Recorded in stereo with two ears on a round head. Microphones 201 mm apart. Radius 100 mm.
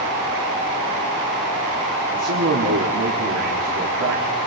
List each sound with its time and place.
2.1 s a man speaking: 70° right (ahead or behind), 2.5 m